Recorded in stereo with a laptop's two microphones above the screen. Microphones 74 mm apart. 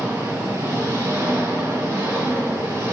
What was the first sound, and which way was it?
An engine running, 45° right (ahead or behind).